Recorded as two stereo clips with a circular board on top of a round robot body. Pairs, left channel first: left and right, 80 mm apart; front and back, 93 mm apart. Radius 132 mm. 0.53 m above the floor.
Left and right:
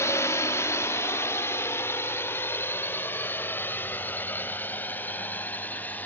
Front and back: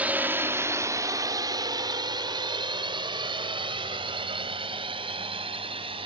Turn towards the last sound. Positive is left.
turn(degrees=160)